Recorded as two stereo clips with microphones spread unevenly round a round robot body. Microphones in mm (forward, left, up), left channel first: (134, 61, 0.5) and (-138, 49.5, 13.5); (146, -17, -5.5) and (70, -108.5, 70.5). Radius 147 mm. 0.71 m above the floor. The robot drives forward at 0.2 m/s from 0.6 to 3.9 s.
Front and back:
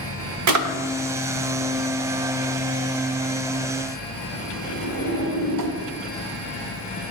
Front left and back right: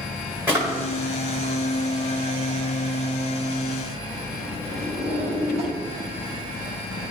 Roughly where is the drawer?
Behind.